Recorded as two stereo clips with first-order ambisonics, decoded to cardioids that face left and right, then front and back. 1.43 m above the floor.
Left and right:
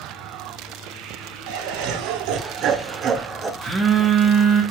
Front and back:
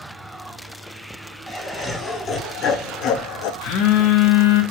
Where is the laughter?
80° right, 1.2 m; by 3.5 s 10° right, 0.6 m.